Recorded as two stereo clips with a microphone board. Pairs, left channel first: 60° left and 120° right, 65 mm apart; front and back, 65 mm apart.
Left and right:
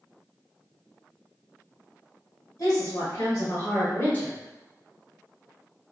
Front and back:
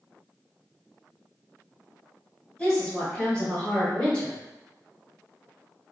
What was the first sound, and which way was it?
A woman speaking, 65° left.